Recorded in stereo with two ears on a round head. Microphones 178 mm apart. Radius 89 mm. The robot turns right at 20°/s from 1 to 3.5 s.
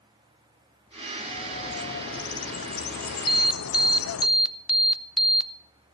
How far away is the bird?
About 0.6 m.